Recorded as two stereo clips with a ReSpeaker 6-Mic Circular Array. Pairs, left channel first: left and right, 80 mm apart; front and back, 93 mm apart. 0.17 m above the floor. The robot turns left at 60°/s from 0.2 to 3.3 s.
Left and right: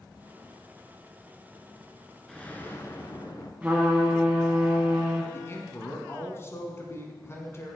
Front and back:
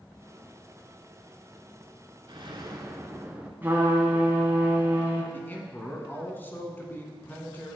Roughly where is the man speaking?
Ahead left.